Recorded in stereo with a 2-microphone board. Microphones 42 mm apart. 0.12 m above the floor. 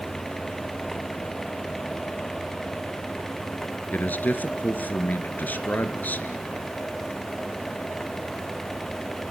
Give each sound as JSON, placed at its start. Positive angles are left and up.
{"t": 3.9, "sound": "a man speaking", "side_deg": 45, "distance_m": 1.8}